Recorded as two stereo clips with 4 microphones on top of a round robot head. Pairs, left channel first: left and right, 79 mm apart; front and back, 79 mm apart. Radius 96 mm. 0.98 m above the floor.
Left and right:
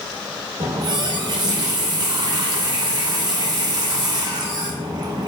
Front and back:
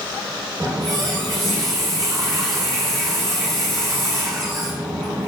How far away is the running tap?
About 0.7 m.